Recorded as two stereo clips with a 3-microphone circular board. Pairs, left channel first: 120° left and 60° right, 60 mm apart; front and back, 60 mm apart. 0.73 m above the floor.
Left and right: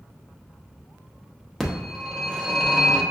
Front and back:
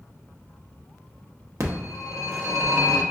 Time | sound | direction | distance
1.6 | a phone ringing | 160° right | 0.8 m